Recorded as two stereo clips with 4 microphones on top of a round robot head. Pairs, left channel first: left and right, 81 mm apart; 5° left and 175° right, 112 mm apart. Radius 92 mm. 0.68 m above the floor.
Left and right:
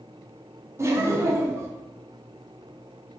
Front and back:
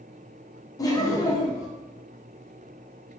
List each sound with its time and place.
0.8 s laughter: 45° right, 0.7 m